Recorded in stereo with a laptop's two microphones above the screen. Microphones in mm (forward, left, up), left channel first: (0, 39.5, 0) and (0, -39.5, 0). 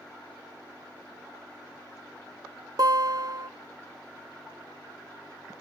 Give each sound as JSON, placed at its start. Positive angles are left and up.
{"t": 2.8, "sound": "a guitar", "side_deg": -55, "distance_m": 0.7}